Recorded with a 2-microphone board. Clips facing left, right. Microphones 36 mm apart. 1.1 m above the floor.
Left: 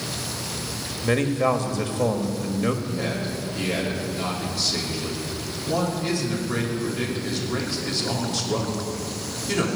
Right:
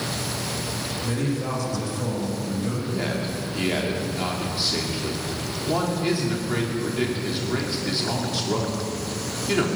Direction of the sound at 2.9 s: 20° right (ahead or behind).